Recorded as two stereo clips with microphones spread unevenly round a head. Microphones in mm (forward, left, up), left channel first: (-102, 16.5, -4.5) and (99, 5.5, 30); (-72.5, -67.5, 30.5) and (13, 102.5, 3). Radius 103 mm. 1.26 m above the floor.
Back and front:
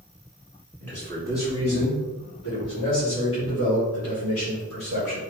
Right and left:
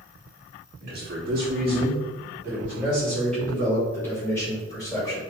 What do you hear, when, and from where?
0.8 s a man speaking: 100° left, 3 m; by 5.2 s 175° left, 6 m